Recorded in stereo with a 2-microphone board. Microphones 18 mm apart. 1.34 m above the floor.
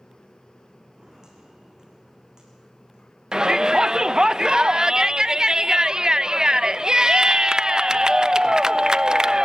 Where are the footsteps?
40° right (ahead or behind), 6 m; by 3.1 s 45° right (ahead or behind), 7 m.